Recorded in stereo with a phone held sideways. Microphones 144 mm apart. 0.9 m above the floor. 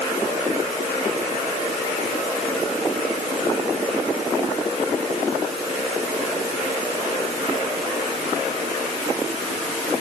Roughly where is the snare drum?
No snare drum in this recording.